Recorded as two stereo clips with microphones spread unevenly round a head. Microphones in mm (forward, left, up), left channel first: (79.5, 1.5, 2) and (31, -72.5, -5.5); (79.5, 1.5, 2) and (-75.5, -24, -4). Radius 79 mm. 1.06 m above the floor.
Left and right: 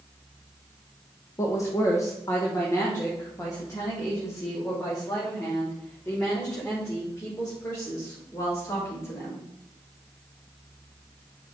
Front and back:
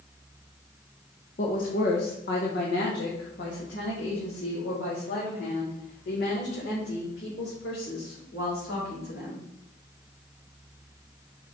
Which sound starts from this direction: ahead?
A woman speaking, at 1.4 s.